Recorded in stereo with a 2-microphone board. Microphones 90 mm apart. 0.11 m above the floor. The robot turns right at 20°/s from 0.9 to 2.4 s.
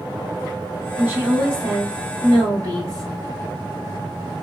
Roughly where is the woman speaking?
Right.